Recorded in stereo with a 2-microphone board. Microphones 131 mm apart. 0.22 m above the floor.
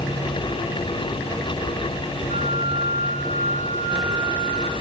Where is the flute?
85° left, 2.5 m.